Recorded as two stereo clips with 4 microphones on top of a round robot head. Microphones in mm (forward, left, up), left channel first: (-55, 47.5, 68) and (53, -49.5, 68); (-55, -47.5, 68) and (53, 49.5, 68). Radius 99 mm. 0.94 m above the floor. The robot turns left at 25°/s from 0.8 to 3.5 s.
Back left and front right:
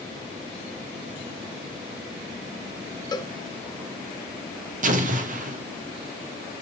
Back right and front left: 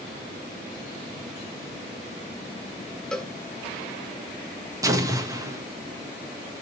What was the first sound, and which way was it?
A cowbell, 145° left.